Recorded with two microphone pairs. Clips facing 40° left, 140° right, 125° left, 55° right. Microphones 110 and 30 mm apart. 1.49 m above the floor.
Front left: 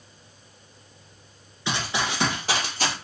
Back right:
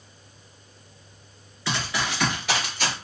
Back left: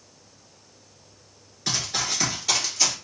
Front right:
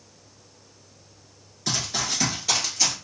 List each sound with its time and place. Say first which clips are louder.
1.7 s running footsteps: front left 1 dB, even; 60° left, 1.5 m; by 2.9 s 30° left, 1.9 m